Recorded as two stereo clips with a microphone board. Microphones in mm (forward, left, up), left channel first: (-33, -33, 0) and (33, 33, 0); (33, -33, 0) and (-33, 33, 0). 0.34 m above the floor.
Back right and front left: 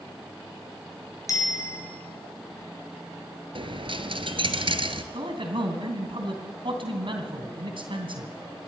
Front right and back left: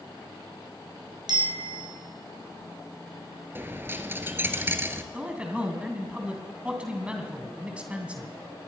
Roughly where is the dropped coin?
Left.